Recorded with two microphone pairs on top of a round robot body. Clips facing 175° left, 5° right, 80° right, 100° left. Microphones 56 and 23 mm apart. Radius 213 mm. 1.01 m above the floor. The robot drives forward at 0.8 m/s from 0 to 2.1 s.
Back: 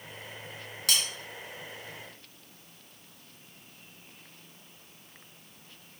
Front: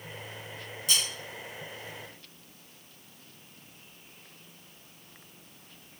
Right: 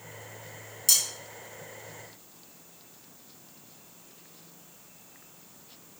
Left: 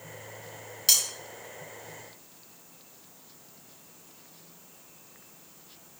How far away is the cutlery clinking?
About 1.6 m.